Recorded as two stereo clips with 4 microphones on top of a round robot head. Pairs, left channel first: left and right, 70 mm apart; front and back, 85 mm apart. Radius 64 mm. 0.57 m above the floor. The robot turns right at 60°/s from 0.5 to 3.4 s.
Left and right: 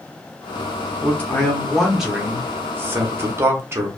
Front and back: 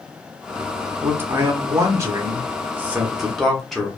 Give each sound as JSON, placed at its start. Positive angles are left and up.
{"t": 1.0, "sound": "a man speaking", "azimuth_deg": 130, "distance_m": 0.9}